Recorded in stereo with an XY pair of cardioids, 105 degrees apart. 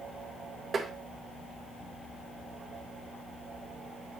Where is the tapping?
35° right, 2 m.